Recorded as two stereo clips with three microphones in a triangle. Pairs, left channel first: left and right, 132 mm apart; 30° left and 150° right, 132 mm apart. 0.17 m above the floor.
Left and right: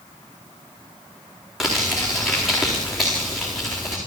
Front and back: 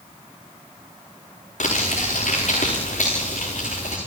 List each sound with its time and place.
1.6 s crumpling: straight ahead, 9 m